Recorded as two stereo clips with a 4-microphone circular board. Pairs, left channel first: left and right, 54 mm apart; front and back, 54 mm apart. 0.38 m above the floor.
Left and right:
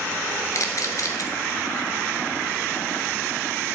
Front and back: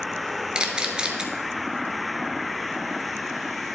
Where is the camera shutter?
105° left, 1.1 m.